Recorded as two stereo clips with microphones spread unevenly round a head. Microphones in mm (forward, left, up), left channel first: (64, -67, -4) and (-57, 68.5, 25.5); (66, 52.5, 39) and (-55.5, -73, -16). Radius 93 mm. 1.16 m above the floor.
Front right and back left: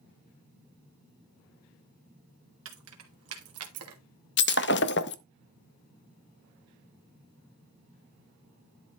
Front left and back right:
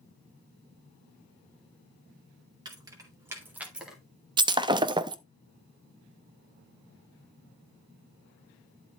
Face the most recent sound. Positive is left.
turn(degrees=-55)